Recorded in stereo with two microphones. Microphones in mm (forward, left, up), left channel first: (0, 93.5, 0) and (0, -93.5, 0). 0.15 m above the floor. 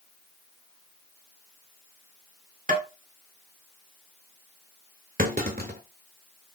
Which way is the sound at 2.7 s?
50° right (ahead or behind).